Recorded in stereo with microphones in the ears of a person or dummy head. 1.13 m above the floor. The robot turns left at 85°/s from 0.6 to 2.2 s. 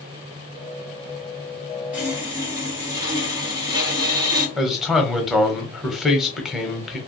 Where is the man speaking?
Centre (ahead or behind), 0.8 m.